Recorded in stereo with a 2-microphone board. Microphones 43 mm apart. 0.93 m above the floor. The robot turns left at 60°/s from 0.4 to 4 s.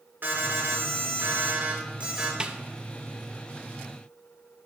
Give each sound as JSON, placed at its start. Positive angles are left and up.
{"t": 0.2, "sound": "an alarm", "azimuth_deg": -50, "distance_m": 3.0}
{"t": 2.4, "sound": "a snare drum", "side_deg": -20, "distance_m": 0.8}